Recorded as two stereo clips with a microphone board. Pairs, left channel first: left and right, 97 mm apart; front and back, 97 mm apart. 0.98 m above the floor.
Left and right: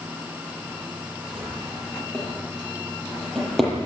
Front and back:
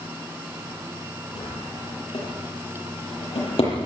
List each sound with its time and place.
1.4 s a drawer: 5° left, 8 m